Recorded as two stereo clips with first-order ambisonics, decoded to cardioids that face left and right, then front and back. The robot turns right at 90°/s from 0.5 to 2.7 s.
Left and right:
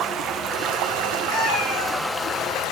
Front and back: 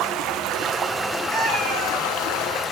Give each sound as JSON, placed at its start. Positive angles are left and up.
{"t": 0.0, "sound": "running water", "azimuth_deg": -140, "distance_m": 0.9}
{"t": 1.3, "sound": "a cat meowing", "azimuth_deg": 100, "distance_m": 5.0}